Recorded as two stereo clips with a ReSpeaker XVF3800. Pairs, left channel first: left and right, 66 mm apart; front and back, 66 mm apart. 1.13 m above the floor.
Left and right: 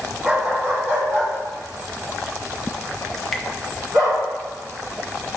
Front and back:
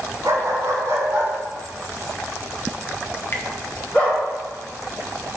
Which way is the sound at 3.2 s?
10° left.